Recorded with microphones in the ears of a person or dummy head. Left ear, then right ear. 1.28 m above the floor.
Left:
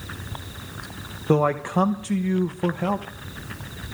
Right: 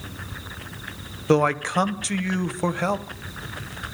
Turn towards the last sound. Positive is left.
turn(degrees=-65)  # may be behind; listen again after turning